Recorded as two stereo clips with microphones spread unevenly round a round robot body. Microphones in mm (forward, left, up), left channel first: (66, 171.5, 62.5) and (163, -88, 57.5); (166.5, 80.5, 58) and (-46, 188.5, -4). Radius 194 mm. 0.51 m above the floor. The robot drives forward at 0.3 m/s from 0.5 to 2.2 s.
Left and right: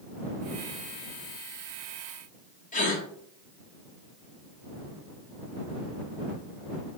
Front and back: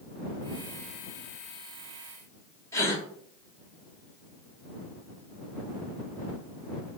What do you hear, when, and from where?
2.7 s a gasp: 65° left, 1.2 m